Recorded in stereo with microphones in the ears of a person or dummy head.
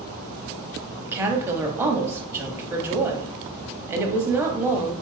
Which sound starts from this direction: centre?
A woman speaking, at 1.0 s.